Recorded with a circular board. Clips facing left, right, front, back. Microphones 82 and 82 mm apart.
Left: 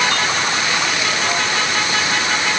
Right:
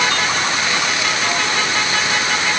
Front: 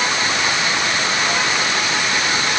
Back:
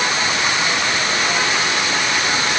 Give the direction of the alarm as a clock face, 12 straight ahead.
I don't hear an alarm.